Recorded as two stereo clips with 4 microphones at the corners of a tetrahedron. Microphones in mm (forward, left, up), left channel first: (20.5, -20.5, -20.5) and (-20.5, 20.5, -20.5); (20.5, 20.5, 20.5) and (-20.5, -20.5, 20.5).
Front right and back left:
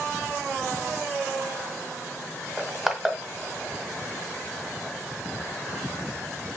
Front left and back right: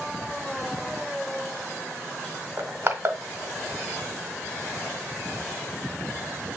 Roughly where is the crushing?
Behind right.